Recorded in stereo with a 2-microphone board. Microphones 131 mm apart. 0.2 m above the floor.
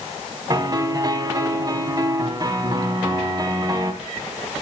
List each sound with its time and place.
0.5 s a piano: 30° right (ahead or behind), 1.0 m